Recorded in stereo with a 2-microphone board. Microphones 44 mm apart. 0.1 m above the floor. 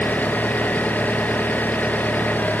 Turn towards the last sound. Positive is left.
turn(degrees=40)  # may be behind; listen again after turning